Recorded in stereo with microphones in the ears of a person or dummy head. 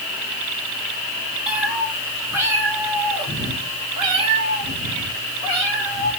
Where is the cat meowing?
Centre (ahead or behind), 2 m; by 6.1 s 40° right (ahead or behind), 4.5 m.